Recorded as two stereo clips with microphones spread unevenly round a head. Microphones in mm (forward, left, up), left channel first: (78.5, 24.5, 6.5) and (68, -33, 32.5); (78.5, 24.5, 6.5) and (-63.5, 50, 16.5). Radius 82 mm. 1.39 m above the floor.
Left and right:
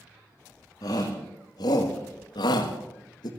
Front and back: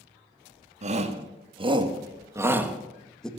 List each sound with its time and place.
0.8 s a shout: 130° left, 2 m; by 3.3 s 75° left, 1.7 m